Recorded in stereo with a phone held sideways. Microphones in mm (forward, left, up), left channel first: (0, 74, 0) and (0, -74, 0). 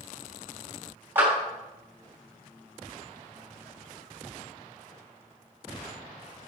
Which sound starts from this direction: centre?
A clap, at 1.1 s.